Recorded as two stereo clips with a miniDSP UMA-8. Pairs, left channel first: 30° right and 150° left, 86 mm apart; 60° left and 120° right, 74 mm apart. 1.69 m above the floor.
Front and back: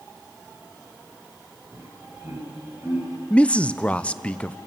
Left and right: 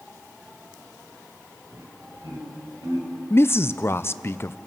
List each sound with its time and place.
1.7 s laughter: 150° right, 7.5 m; by 3.1 s 145° right, 8 m
3.3 s a man speaking: 35° left, 0.5 m